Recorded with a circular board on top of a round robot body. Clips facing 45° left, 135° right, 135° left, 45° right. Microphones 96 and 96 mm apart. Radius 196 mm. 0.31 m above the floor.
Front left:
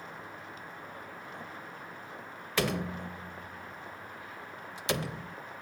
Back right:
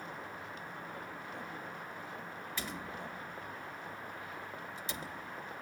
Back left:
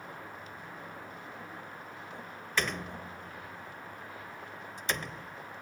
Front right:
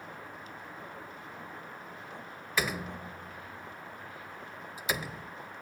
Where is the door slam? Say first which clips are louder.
Front left 13 dB, front right 1 dB; 40° left.